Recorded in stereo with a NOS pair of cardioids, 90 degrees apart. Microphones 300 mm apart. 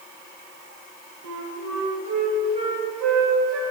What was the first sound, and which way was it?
A flute, 60° right.